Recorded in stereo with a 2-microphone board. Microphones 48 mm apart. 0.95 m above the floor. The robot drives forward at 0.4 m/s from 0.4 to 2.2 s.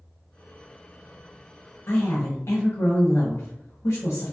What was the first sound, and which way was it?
A woman speaking, 70° left (ahead or behind).